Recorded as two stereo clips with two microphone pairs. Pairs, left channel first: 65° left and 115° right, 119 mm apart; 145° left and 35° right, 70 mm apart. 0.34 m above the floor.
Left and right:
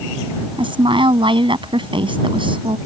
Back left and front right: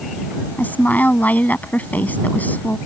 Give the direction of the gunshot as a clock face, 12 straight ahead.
No gunshot in this recording.